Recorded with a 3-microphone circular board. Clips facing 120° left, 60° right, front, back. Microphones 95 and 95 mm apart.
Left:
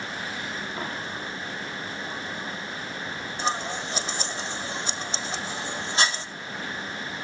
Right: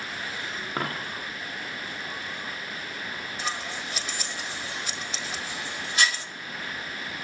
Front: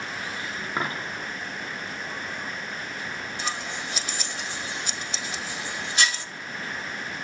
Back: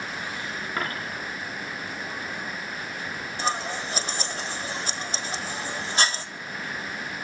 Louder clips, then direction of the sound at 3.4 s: Left 6 dB, back 6 dB; 155° left.